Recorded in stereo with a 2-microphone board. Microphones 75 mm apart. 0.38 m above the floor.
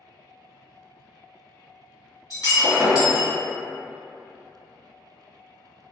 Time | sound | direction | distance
2.3 | breaking glass | 50° left (ahead or behind) | 1.7 m